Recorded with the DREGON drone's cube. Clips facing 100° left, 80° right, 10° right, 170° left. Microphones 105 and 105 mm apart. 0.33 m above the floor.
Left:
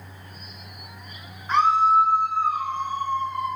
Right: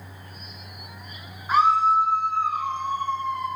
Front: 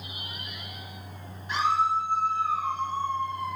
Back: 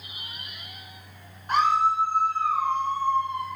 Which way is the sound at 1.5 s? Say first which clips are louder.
Even, back 3 dB; 160° right.